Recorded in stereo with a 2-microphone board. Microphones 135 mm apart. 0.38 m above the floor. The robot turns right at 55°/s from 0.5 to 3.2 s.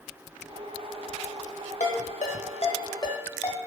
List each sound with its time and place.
1.8 s a ringtone: 60° left (ahead or behind), 0.8 m; by 3.6 s 20° left (ahead or behind), 0.8 m